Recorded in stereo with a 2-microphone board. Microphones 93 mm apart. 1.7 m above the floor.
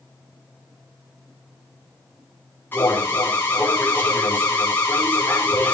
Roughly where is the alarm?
Left.